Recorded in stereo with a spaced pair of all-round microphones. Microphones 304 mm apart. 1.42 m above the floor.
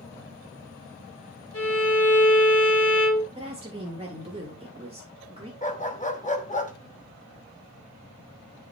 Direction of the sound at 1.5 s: 45° left (ahead or behind).